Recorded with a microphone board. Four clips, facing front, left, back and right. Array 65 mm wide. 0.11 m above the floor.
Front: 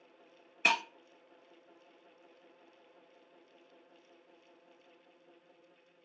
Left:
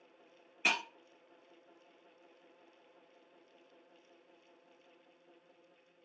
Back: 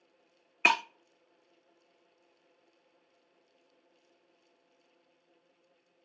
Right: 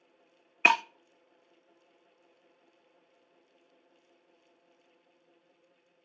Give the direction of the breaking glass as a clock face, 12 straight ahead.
4 o'clock.